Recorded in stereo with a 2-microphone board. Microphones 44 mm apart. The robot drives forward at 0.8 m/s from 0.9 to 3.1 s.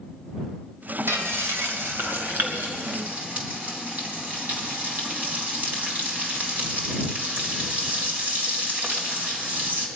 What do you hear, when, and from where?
1.1 s frying: 65° right (ahead or behind), 1.7 m; by 9.9 s 35° right (ahead or behind), 2.5 m